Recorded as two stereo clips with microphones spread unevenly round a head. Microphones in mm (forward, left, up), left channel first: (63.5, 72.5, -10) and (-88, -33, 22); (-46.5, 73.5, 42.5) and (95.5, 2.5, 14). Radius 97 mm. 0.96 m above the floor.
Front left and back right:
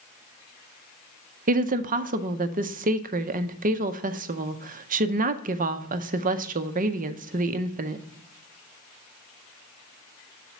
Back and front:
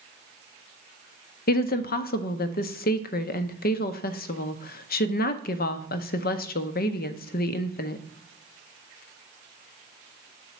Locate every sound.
1.5 s a woman speaking: 170° left, 0.6 m